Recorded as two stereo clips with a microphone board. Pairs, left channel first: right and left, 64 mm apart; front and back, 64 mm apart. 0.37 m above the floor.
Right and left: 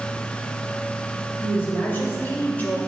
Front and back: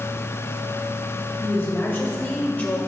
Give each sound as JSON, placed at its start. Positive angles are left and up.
{"t": 1.4, "sound": "a woman speaking", "azimuth_deg": -45, "distance_m": 1.8}